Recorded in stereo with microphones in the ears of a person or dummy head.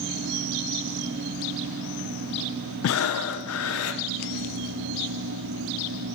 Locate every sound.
2.8 s breathing: 75° left (ahead or behind), 0.6 m